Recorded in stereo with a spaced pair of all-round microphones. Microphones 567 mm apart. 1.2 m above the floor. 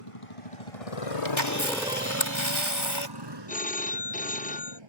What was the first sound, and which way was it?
A motorcycle, 65° left (ahead or behind).